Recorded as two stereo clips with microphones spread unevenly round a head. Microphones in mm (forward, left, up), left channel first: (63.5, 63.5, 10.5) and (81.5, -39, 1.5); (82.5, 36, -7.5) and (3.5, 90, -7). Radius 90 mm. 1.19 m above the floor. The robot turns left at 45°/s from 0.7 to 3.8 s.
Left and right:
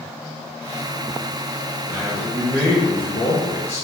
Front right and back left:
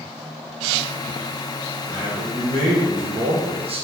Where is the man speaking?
145° right, 0.8 m; by 3.9 s 130° left, 0.8 m.